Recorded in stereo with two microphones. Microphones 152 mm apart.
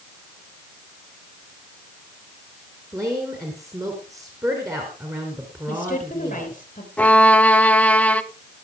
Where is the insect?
No insect in this recording.